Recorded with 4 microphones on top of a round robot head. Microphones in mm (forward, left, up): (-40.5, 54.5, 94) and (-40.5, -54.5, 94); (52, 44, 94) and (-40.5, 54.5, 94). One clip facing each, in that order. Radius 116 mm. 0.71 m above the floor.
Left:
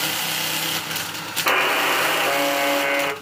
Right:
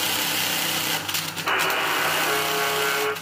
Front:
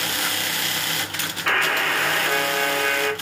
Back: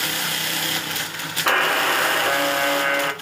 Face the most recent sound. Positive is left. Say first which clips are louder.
# left 4 dB, back 3 dB
turn(degrees=115)